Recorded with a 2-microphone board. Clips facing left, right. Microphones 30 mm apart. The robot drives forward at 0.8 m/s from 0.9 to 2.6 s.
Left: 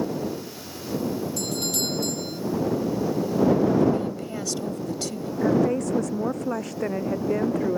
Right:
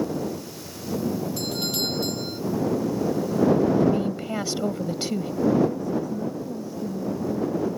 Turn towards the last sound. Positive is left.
turn(degrees=85)